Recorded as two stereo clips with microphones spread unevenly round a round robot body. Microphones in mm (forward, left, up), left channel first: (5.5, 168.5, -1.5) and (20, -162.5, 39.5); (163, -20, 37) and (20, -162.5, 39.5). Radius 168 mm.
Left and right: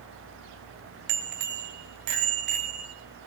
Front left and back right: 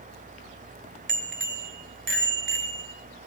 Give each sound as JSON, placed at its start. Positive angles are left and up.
{"t": 1.1, "sound": "a bicycle bell", "azimuth_deg": -105, "distance_m": 2.0}